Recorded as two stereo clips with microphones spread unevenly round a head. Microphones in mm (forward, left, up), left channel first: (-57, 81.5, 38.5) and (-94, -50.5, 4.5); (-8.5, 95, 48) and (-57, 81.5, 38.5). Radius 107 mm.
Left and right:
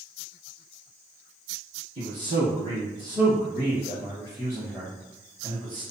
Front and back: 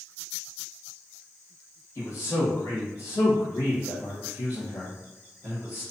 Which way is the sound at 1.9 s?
50° left.